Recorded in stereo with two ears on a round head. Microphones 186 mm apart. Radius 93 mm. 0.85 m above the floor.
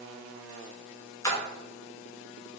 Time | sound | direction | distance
1.2 | a splash | 15° left (ahead or behind) | 0.7 m